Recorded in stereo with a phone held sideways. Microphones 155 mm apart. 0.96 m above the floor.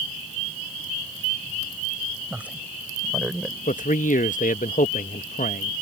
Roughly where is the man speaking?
Left.